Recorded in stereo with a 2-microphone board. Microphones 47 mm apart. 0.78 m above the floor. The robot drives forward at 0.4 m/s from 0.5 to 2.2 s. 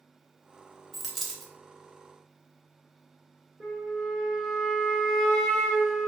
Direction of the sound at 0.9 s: Centre (ahead or behind).